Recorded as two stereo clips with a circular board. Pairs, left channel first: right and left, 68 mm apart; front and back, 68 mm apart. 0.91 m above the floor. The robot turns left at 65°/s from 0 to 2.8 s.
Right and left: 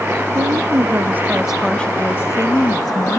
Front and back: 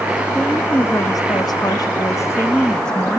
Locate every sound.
0.3 s a woman speaking: 80° left, 0.9 m; by 3.2 s 80° right, 0.9 m